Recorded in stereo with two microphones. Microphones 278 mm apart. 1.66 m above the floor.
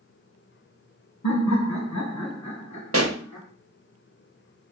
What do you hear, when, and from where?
1.2 s laughter: 70° left (ahead or behind), 1.3 m; by 3.5 s 75° left (ahead or behind), 3.5 m
2.9 s a pop: 55° right (ahead or behind), 1.0 m